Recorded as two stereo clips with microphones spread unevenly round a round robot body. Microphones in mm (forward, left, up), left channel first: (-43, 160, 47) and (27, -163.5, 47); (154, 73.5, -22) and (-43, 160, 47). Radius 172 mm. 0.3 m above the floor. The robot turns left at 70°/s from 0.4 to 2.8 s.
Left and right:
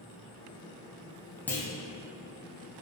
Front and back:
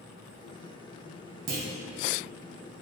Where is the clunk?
170° right, 0.6 m; by 1.7 s 175° left, 0.6 m.